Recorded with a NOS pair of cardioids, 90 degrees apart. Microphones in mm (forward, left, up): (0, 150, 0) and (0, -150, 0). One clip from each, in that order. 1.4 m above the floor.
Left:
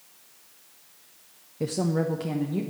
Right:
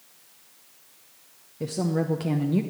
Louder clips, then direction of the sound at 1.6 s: Left 1 dB; 15° left.